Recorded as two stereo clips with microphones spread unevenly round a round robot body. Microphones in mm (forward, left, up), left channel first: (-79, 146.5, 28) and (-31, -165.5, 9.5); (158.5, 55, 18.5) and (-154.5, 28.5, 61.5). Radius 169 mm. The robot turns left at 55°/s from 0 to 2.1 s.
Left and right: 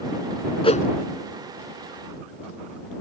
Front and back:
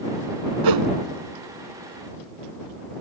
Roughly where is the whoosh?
Behind.